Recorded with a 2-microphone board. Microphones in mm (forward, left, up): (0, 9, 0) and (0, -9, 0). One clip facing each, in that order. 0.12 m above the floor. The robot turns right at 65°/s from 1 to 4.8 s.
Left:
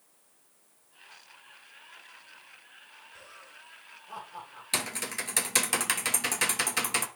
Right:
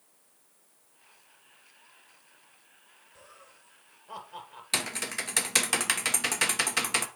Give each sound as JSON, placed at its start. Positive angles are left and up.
{"t": 3.1, "sound": "laughter", "side_deg": 30, "distance_m": 2.0}
{"t": 4.7, "sound": "typing on a keyboard", "side_deg": -5, "distance_m": 1.2}